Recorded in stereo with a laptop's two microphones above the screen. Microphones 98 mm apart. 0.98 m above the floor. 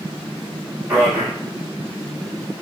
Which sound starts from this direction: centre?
A man speaking, at 0.9 s.